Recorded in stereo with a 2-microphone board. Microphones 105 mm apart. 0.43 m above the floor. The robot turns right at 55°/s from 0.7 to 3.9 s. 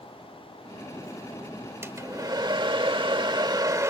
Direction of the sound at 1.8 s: 150° right.